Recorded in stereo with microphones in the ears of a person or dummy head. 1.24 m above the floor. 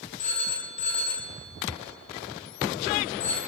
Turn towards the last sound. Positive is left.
turn(degrees=40)  # may be behind; listen again after turning